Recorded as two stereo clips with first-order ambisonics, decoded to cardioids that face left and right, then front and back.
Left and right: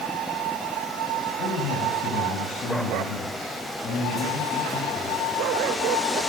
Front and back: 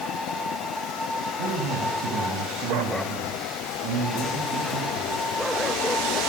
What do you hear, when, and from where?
1.4 s a man speaking: 140° left, 7.5 m; by 5.3 s 155° left, 12.5 m